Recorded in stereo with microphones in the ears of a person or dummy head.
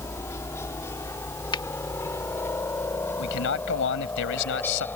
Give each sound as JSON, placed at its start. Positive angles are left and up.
{"t": 0.0, "sound": "a helicopter", "side_deg": 15}
{"t": 1.5, "sound": "a finger snap", "side_deg": 25}
{"t": 3.2, "sound": "a man speaking", "side_deg": 75}